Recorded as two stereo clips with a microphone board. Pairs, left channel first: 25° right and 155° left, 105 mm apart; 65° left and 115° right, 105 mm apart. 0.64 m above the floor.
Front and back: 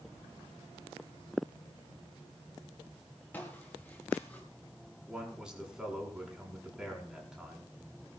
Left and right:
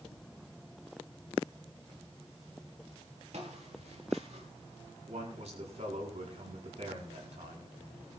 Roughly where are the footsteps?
Right.